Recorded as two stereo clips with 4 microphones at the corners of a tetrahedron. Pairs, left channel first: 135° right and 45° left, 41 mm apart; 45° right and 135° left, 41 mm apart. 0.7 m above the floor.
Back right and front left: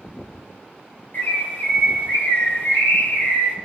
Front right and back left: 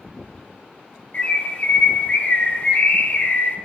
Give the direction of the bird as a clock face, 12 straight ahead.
4 o'clock.